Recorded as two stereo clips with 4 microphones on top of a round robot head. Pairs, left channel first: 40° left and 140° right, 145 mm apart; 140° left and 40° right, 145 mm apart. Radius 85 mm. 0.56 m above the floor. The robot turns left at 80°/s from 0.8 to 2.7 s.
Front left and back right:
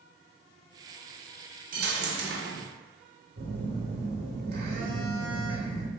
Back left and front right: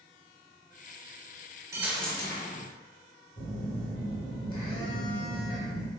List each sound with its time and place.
1.7 s a dropped coin: 110° right, 0.6 m; by 2.7 s 175° left, 0.6 m
3.4 s a phone buzzing: 155° right, 0.9 m